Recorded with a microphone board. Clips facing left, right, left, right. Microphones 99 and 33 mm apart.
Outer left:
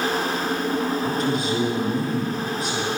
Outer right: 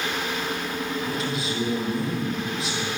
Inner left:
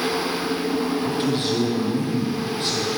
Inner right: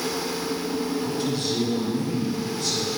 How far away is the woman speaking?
About 5 m.